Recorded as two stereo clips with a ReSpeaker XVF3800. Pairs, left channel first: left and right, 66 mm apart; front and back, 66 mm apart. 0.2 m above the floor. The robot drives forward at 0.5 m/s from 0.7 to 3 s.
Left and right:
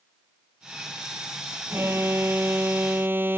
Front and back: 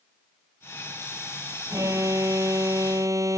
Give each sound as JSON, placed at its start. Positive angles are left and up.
{"t": 1.7, "sound": "an alarm", "azimuth_deg": -140}